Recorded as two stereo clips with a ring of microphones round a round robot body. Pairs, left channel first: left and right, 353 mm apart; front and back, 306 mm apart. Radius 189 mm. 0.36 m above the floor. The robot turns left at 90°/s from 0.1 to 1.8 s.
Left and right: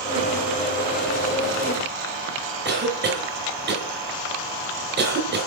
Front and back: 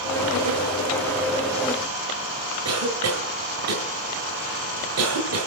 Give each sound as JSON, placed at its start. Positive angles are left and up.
{"t": 2.6, "sound": "a cough", "azimuth_deg": -150, "distance_m": 2.0}